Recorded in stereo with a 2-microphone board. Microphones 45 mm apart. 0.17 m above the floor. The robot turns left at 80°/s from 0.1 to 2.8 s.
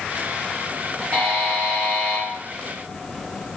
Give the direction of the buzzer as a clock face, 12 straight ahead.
3 o'clock.